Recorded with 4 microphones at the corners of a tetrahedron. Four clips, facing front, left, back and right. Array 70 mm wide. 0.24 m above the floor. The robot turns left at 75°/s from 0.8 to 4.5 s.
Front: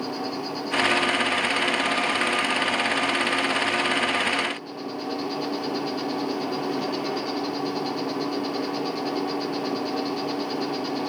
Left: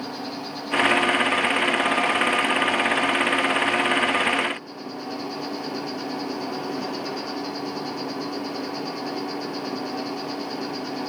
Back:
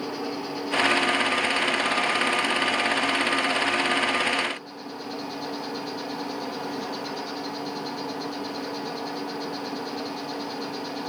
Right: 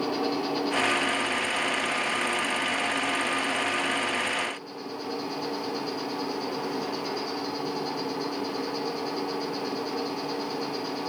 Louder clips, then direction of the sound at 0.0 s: Right 5 dB, front 1 dB; 75° right.